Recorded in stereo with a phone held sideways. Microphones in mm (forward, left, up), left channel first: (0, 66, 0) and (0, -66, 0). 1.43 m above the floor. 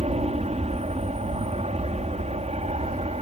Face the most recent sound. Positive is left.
turn(degrees=-55)  # may be behind; listen again after turning